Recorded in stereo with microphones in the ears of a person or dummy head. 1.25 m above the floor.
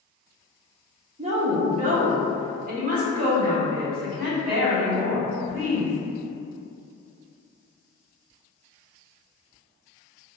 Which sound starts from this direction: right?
A woman speaking, at 1.2 s.